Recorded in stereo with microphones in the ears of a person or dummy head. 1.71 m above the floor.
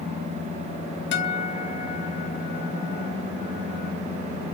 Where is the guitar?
65° left (ahead or behind), 1.4 m.